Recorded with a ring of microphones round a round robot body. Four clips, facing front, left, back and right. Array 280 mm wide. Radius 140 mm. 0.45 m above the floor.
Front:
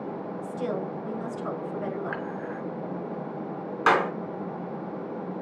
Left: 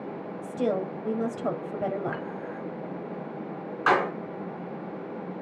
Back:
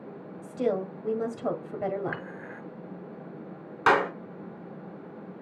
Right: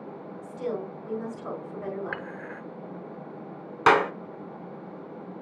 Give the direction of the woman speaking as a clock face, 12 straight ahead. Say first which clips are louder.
Left 5 dB, back 4 dB; 8 o'clock.